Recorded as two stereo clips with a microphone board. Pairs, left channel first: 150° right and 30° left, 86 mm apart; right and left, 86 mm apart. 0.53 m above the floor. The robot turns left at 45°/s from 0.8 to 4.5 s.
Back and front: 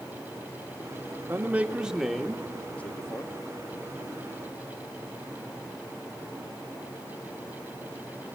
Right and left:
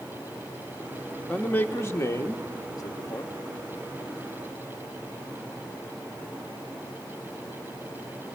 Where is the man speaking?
25° right, 1.0 m; by 3.3 s 115° right, 1.0 m.